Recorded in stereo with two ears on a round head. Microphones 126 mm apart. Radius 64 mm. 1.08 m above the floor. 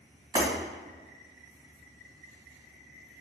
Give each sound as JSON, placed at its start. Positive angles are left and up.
{"t": 0.3, "sound": "breaking glass", "side_deg": -30, "distance_m": 1.7}